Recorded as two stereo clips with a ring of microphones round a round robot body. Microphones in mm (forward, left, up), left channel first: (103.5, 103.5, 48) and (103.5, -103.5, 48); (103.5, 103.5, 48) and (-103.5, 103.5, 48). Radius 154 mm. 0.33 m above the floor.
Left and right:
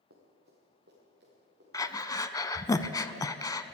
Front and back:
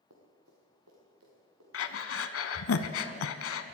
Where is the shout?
No shout in this recording.